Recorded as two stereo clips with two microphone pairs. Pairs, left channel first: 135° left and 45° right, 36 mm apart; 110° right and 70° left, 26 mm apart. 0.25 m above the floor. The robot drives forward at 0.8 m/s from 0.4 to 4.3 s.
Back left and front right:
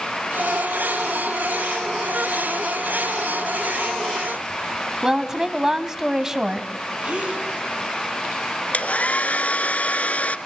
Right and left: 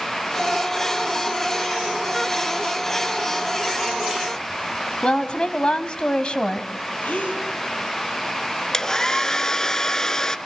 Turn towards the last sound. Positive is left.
turn(degrees=180)